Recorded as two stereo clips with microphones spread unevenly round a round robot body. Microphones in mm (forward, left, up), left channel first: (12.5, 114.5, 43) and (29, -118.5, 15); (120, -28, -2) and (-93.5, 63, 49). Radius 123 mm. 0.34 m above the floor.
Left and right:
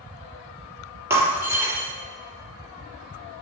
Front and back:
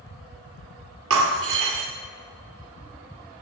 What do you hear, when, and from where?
1.1 s breaking glass: 165° right, 2.0 m